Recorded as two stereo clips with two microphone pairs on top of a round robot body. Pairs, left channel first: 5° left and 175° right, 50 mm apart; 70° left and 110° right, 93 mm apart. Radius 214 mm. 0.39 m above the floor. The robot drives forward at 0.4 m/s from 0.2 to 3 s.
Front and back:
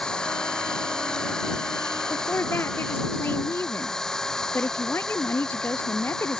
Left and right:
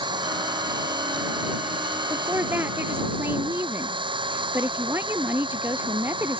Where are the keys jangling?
No keys jangling in this recording.